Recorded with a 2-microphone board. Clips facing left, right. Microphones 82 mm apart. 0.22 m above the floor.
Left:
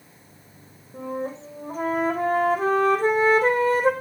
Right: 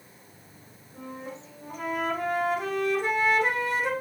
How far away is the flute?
About 4 m.